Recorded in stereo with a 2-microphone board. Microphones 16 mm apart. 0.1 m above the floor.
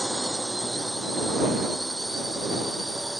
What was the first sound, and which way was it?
A drone, centre (ahead or behind).